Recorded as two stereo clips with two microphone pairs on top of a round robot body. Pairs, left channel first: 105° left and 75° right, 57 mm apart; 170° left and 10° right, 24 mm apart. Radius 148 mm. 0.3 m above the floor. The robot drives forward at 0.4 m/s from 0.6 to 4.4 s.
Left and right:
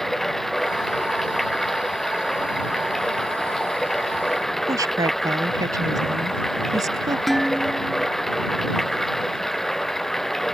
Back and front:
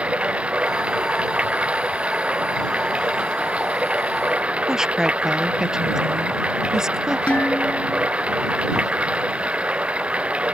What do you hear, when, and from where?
0.0 s running water: 15° left
4.7 s a woman speaking: 75° right
7.3 s dishes clattering: 170° right